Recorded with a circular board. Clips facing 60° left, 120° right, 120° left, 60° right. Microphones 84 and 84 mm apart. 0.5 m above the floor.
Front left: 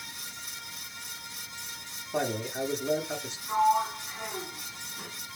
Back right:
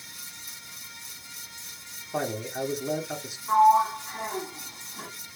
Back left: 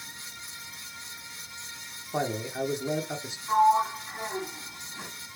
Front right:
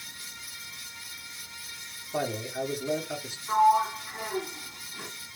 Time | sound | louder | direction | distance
2.1 | a man speaking | even, back left 1 dB | 165° left | 0.9 m
3.5 | a sliding door | back right 6 dB, even | 165° right | 1.2 m